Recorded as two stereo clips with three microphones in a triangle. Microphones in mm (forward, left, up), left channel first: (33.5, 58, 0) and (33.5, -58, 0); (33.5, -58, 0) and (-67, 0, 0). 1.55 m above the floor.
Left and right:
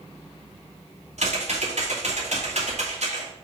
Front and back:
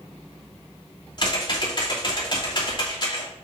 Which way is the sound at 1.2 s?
80° right.